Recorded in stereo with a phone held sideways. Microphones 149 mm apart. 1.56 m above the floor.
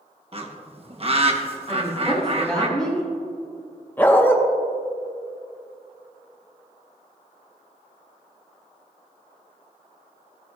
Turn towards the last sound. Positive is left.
turn(degrees=15)  # may be behind; listen again after turning